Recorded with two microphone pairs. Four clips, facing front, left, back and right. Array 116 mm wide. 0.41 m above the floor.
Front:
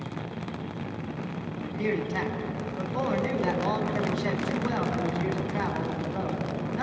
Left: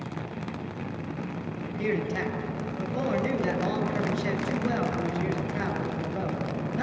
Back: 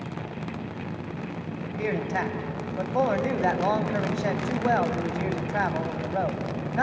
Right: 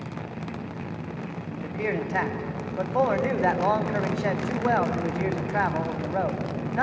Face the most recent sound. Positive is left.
turn(degrees=-125)